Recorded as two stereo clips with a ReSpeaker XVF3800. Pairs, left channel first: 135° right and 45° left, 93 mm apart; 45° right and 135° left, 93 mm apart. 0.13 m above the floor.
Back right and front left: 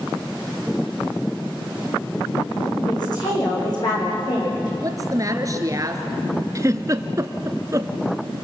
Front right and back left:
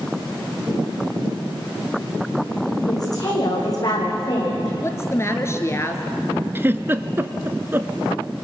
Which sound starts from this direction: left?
A giggle, at 6.5 s.